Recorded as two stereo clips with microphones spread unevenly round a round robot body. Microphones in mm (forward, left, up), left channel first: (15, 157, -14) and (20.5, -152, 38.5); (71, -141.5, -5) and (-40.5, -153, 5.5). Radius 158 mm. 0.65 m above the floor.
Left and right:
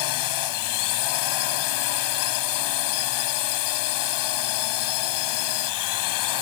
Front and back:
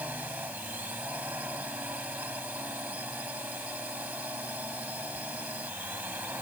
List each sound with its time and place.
0.0 s a drone: 100° left